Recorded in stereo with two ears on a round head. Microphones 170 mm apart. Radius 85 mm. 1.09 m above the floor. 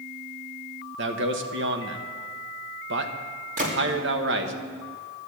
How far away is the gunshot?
About 2 m.